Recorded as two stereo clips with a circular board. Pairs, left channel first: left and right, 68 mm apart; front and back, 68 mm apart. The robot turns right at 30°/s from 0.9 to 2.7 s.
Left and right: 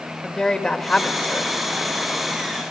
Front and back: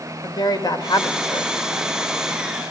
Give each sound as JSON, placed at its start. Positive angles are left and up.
{"t": 0.2, "sound": "a woman speaking", "azimuth_deg": 10, "distance_m": 2.5}